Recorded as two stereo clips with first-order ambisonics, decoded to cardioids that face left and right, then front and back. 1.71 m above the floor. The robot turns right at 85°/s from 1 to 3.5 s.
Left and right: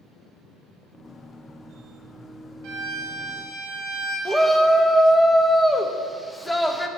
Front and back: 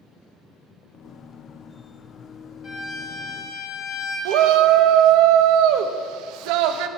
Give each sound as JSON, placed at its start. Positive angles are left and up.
{"t": 2.6, "sound": "a violin", "azimuth_deg": -65, "distance_m": 3.5}
{"t": 4.2, "sound": "a shout", "azimuth_deg": 175, "distance_m": 0.8}